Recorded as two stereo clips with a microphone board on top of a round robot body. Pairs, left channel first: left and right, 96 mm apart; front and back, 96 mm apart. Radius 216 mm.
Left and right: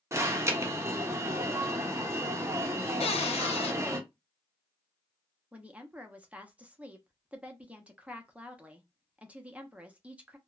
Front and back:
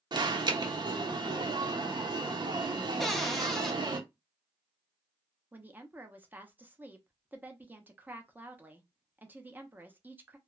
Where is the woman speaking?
145° right, 0.9 m.